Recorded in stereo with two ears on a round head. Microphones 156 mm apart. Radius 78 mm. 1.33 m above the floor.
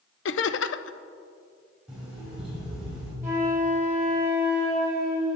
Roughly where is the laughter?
Left.